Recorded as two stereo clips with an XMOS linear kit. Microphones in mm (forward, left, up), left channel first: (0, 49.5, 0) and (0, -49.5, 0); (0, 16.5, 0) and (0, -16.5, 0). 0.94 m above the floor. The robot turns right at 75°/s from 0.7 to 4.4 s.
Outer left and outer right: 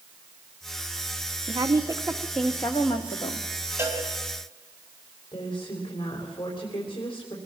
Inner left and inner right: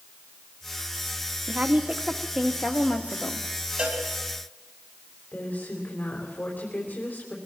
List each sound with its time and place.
1.5 s a woman speaking: 65° right, 1.9 m; by 3.5 s 85° left, 1.9 m
3.8 s a cowbell: 25° right (ahead or behind), 4 m; by 4.0 s 40° right (ahead or behind), 4 m
5.3 s a woman speaking: 50° left (ahead or behind), 3.5 m